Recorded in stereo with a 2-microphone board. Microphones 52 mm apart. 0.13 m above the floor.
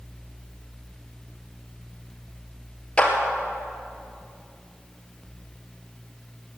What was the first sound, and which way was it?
A clap, 20° left (ahead or behind).